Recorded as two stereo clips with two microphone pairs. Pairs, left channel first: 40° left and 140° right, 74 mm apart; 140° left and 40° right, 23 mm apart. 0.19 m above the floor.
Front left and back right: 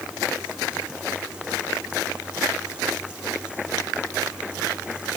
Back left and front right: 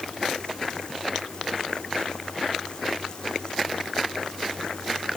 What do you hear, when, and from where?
Only background noise.